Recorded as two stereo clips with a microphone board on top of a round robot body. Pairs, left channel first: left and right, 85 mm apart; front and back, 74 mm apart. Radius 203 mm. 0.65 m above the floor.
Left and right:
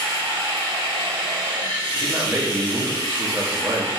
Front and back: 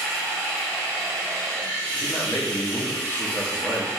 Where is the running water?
70° right, 1.5 m.